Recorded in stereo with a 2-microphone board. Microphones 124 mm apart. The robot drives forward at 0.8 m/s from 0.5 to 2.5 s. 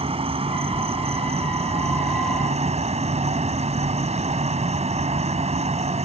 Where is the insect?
50° right (ahead or behind); by 6.0 s 60° right (ahead or behind).